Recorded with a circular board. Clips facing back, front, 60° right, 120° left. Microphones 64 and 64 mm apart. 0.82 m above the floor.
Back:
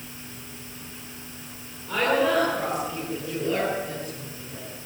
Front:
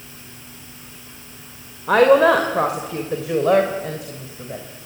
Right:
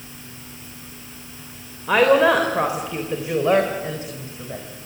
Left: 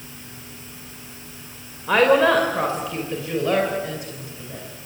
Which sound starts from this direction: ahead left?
A woman speaking, at 1.9 s.